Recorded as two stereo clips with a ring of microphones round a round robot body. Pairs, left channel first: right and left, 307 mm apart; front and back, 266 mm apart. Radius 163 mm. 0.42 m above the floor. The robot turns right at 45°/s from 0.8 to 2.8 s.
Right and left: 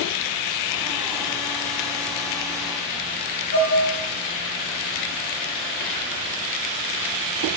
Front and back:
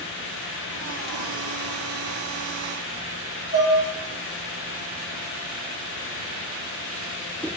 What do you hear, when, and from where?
3.5 s dishes clattering: 95° right, 3.5 m